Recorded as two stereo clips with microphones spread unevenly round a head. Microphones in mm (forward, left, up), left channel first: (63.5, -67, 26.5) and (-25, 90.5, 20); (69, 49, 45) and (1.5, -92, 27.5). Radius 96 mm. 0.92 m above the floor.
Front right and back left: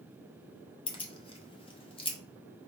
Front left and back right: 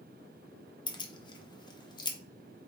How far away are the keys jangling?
About 1.0 m.